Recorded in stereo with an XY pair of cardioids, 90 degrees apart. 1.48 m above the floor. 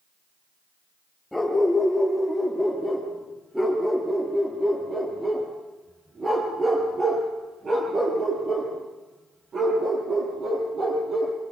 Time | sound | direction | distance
1.3 | a dog barking | 15° left | 8 m